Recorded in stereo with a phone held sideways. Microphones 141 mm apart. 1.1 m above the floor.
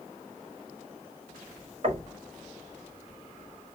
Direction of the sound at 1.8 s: 50° right (ahead or behind).